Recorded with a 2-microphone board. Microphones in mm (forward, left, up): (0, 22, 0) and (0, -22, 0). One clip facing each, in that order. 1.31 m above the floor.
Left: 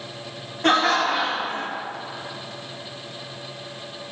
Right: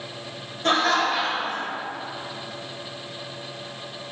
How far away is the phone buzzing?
I don't hear a phone buzzing.